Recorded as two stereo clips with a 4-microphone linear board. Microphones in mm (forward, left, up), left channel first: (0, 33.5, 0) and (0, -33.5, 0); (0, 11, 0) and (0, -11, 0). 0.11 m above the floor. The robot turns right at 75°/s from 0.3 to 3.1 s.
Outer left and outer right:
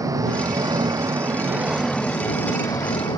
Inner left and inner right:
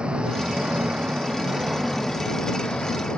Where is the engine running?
120° right; by 3.2 s 90° left.